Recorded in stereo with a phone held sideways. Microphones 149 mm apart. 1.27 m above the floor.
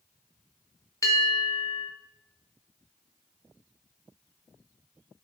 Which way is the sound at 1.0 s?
20° left (ahead or behind).